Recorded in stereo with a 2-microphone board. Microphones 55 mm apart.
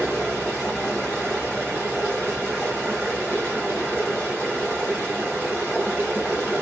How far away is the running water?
About 2.5 m.